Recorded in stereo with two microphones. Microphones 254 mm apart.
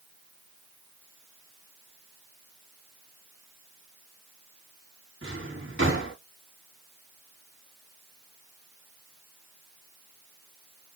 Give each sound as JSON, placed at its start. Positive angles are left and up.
{"t": 5.2, "sound": "a drawer", "side_deg": -50, "distance_m": 2.5}